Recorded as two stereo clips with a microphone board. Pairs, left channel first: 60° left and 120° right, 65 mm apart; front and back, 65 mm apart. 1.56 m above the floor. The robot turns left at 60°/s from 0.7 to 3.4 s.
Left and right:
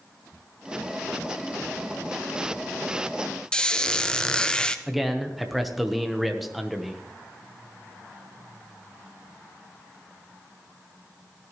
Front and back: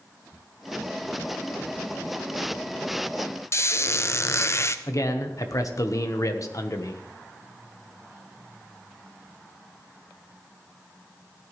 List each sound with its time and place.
3.5 s a squeak: 10° right, 0.6 m
4.9 s a man speaking: 35° right, 1.0 m